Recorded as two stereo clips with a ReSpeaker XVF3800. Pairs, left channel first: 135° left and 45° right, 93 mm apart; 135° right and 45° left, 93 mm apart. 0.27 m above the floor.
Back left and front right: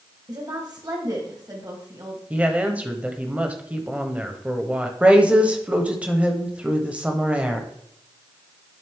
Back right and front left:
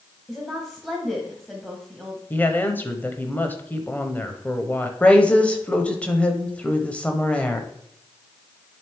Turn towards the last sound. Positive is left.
turn(degrees=-90)